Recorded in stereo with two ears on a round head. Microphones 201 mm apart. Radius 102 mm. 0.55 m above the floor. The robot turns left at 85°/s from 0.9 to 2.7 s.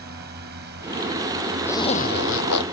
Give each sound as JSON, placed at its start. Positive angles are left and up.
{"t": 0.0, "sound": "a drone", "side_deg": -45}
{"t": 1.6, "sound": "a zipper", "azimuth_deg": 170}